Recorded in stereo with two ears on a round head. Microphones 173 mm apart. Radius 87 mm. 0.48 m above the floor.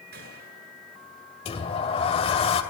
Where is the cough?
I don't hear a cough.